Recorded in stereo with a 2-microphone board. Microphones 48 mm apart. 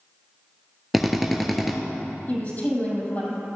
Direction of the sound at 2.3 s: 35° left (ahead or behind).